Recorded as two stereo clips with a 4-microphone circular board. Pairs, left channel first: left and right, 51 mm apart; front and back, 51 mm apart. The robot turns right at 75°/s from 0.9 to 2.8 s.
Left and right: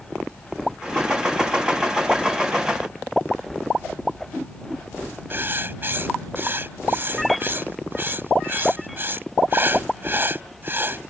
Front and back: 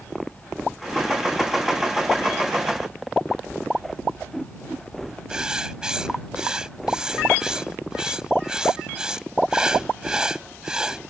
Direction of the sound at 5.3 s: 110° right.